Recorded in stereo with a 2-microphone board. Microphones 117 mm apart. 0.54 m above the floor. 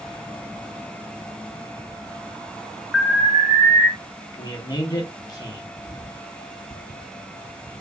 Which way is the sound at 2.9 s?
5° right (ahead or behind).